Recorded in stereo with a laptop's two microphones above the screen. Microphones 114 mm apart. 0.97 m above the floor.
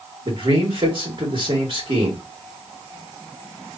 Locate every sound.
0.2 s a man speaking: 50° right (ahead or behind), 2.5 m